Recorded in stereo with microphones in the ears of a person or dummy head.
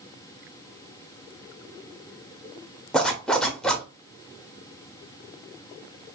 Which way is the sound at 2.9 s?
5° left (ahead or behind).